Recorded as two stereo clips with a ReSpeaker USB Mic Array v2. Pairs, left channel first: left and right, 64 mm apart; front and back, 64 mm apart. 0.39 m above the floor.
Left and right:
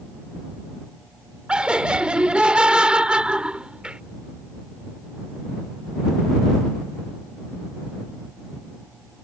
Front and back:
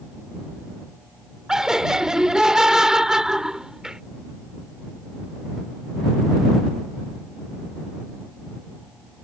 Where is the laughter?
120° right.